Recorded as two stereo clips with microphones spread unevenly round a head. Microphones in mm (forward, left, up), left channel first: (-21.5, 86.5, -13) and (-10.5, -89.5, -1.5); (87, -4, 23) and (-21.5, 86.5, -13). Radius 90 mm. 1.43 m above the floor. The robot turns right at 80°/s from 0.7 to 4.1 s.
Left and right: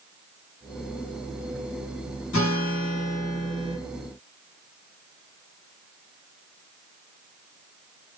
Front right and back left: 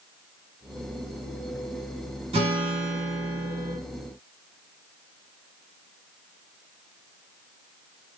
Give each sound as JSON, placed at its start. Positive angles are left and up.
{"t": 2.3, "sound": "a guitar", "azimuth_deg": 85, "distance_m": 1.3}